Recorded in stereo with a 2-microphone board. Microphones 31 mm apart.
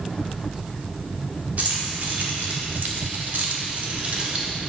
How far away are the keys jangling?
About 1.6 m.